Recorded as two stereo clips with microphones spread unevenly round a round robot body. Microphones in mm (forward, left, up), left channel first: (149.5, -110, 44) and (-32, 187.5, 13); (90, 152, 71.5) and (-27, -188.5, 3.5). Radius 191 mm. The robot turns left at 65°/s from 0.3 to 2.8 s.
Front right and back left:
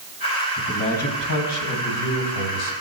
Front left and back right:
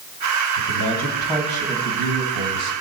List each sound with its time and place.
0.6 s a man speaking: 30° left, 3 m; by 2.7 s 110° right, 3 m